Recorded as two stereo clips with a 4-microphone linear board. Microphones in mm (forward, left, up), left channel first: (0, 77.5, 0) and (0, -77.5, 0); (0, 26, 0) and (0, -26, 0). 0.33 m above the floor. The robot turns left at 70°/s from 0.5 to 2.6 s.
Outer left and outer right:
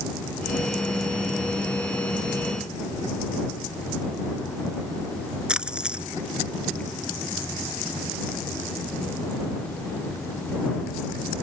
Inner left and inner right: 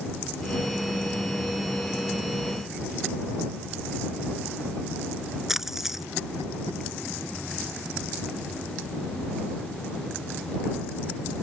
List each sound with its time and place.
5.5 s a splash: 5° right (ahead or behind)